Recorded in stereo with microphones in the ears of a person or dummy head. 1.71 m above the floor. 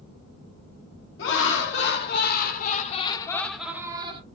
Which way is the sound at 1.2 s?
70° left (ahead or behind).